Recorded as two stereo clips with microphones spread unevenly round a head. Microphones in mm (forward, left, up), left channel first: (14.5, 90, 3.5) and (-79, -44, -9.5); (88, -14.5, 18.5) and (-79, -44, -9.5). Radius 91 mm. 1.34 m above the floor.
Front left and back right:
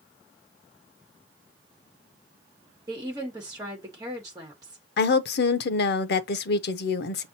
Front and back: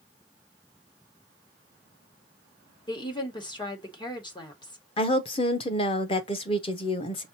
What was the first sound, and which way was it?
A woman speaking, 55° right.